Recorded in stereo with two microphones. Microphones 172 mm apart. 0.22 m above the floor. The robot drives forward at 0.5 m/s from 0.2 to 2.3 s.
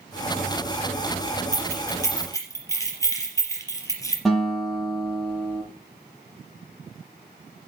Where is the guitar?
Centre (ahead or behind), 8 m.